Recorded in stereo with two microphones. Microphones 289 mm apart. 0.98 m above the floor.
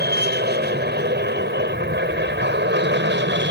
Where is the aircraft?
35° right (ahead or behind); by 3.5 s 40° right (ahead or behind).